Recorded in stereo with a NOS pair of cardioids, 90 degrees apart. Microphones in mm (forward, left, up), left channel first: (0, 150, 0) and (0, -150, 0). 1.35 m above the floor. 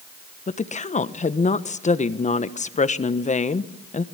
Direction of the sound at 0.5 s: 25° left.